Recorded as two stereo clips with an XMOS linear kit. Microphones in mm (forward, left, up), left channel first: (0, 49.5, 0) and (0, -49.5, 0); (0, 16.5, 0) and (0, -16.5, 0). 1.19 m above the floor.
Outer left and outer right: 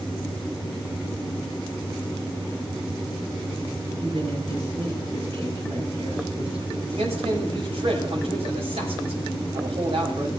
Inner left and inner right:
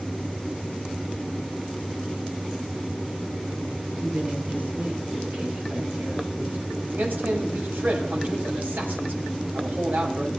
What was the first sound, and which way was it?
A woman speaking, 70° right (ahead or behind).